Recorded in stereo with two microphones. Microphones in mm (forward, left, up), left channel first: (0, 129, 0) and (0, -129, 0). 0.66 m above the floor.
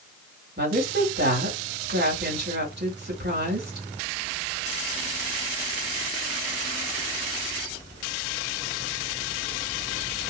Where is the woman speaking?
40° right (ahead or behind), 2 m.